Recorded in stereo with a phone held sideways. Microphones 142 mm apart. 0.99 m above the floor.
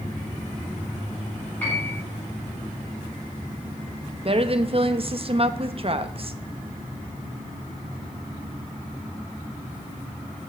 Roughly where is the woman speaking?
Right.